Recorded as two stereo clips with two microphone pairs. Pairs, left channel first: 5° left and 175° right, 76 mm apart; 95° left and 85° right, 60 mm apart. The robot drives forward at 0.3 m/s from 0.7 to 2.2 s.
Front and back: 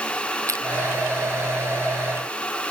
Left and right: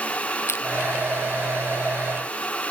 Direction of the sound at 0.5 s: 140° left.